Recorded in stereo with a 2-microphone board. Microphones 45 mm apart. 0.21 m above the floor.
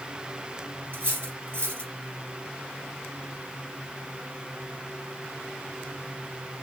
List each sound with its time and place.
0.9 s cutlery clinking: 55° right (ahead or behind), 2.5 m